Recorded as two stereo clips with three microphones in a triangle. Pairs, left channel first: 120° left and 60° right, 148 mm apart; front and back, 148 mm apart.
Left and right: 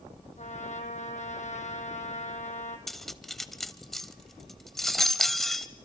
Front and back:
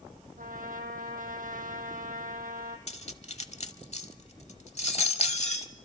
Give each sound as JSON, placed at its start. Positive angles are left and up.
{"t": 0.4, "sound": "a trumpet", "azimuth_deg": 155, "distance_m": 2.0}
{"t": 2.9, "sound": "cutlery clinking", "azimuth_deg": 30, "distance_m": 0.9}